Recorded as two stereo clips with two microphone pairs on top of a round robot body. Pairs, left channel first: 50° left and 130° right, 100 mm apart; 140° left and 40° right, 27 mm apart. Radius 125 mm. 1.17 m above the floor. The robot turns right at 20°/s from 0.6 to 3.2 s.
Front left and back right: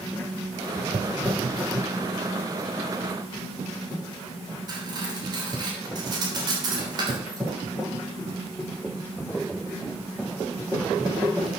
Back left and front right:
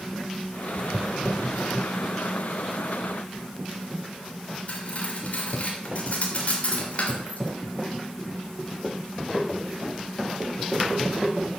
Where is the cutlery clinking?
Straight behind, 3 m.